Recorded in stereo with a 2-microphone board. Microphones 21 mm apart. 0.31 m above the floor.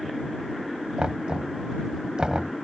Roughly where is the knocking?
Right.